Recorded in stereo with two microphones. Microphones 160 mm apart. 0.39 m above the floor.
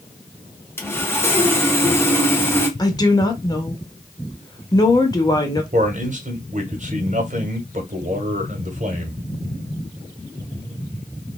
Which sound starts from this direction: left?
A woman speaking, at 2.8 s.